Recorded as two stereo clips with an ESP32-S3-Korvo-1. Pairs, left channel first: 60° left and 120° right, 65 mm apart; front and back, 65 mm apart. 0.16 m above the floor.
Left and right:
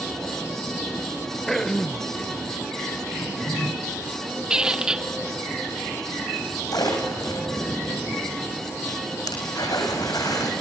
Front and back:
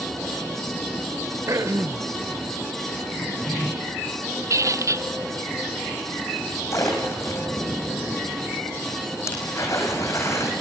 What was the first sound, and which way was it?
Throat clearing, 145° left.